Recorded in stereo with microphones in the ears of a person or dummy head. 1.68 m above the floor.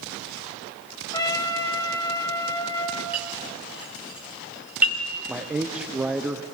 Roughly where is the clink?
Centre.